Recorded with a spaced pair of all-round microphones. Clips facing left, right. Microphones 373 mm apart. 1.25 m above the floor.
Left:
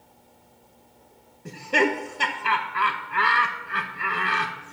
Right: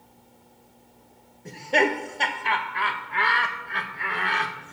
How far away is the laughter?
About 1.0 m.